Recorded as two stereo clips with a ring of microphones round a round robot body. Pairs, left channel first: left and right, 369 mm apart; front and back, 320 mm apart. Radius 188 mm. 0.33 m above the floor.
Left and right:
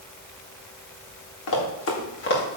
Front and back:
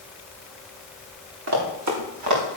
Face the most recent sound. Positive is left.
turn(degrees=155)